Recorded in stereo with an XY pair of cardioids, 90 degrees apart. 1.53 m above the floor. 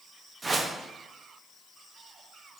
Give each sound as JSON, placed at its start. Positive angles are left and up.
{"t": 0.4, "sound": "a whoosh", "azimuth_deg": -30, "distance_m": 0.5}